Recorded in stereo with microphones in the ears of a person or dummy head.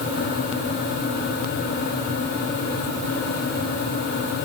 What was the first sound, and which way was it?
Only background noise.